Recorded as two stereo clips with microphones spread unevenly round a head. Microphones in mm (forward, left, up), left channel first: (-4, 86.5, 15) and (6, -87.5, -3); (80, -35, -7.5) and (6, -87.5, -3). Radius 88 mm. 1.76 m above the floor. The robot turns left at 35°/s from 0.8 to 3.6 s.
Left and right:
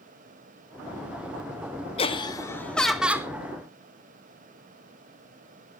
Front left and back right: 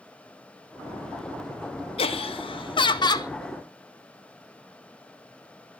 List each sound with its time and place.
2.0 s laughter: 40° left, 1.9 m; by 3.3 s 10° right, 1.9 m